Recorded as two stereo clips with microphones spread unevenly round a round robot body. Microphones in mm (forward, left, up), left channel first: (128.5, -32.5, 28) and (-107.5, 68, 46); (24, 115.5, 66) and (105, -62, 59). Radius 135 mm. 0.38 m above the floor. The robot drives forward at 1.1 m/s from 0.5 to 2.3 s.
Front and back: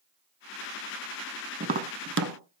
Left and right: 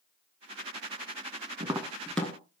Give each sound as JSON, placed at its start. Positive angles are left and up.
{"t": 1.6, "sound": "tapping", "azimuth_deg": -135, "distance_m": 0.6}